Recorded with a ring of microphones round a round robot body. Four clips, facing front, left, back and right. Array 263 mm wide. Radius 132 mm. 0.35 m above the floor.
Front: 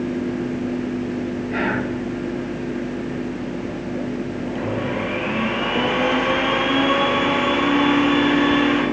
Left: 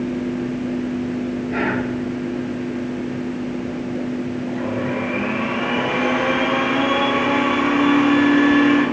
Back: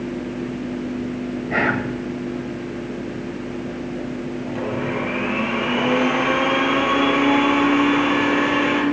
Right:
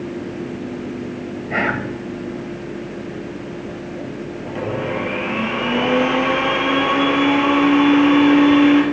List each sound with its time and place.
1.5 s whispering: 130° right, 2 m
4.5 s a blender: 105° right, 5.5 m